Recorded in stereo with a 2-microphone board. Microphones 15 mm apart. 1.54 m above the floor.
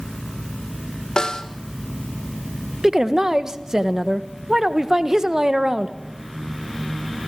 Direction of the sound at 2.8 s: 35° right (ahead or behind).